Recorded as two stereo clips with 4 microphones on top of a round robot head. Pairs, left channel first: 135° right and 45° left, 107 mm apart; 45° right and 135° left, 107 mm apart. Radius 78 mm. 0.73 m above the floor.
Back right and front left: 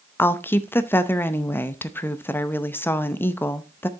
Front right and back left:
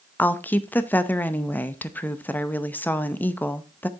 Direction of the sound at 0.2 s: 95° right.